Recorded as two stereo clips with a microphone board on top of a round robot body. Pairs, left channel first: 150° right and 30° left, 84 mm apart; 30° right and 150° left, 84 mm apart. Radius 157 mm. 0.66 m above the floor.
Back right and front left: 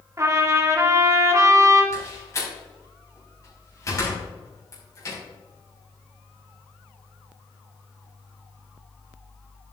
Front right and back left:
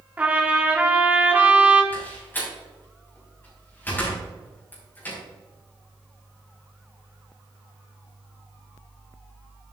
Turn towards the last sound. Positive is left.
turn(degrees=-100)